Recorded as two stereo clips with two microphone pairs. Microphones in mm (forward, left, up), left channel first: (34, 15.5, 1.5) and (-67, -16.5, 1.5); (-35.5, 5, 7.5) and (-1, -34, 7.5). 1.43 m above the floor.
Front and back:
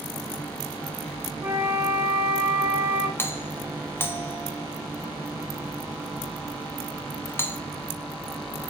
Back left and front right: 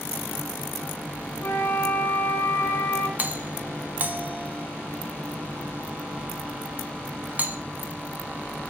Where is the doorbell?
35° right, 0.8 m.